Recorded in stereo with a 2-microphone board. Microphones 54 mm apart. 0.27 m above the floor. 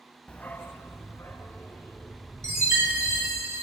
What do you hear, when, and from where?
0.3 s a dog barking: 25° left (ahead or behind), 0.6 m; by 3.4 s 75° left (ahead or behind), 4.5 m
2.4 s a chime: 75° right (ahead or behind), 5 m